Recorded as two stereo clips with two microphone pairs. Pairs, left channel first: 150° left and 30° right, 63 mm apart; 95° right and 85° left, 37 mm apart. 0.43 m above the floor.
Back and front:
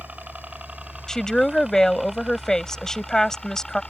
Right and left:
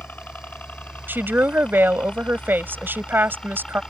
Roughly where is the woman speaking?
Left.